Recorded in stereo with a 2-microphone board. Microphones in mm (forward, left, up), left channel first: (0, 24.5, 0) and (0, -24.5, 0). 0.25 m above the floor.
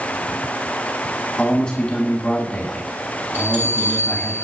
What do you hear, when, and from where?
1.4 s a man speaking: 25° left (ahead or behind), 2.5 m
3.3 s a bell: 40° right (ahead or behind), 7.5 m